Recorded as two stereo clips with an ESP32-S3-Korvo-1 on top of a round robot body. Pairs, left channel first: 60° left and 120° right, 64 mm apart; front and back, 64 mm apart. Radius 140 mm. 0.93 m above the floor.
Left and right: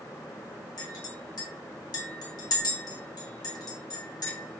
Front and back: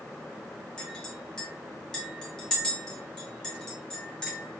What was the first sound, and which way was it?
A clink, 80° left.